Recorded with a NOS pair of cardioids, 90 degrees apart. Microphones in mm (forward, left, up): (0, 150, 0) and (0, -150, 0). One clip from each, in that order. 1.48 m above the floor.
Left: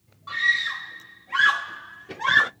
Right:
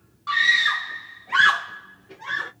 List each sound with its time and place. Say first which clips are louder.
0.3 s a scream: right 4 dB; 55° right, 1.4 m; by 2.5 s 75° left, 0.8 m